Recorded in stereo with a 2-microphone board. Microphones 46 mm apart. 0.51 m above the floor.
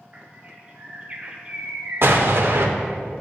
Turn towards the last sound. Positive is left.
turn(degrees=-55)  # may be behind; listen again after turning